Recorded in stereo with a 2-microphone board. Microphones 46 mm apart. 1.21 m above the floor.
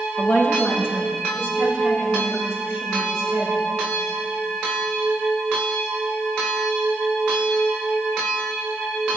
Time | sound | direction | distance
0.2 | a woman speaking | 45° left (ahead or behind) | 1.2 m